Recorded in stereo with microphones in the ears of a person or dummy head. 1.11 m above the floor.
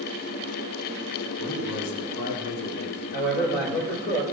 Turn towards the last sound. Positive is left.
turn(degrees=55)  # may be behind; listen again after turning